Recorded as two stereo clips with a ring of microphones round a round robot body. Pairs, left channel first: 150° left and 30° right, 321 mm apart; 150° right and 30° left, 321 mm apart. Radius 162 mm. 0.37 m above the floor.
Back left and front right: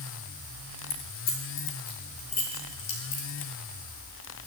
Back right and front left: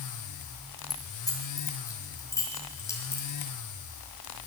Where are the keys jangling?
130° left, 5.5 m.